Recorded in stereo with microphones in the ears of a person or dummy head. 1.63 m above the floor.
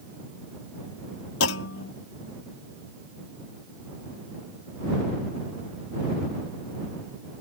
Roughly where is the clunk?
Left.